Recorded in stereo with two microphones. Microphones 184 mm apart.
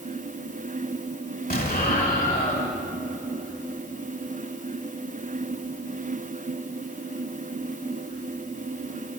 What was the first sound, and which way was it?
An explosion, 55° left (ahead or behind).